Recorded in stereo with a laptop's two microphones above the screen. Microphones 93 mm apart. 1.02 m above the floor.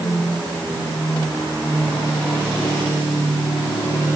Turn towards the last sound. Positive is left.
No sound to turn to.